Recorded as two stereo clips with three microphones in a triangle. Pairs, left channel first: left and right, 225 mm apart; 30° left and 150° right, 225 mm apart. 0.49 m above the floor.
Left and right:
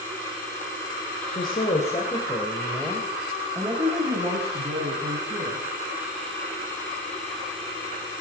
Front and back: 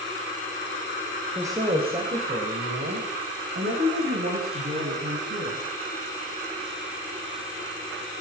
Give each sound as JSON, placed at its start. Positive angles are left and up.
{"t": 1.3, "sound": "a woman speaking", "azimuth_deg": 135, "distance_m": 2.5}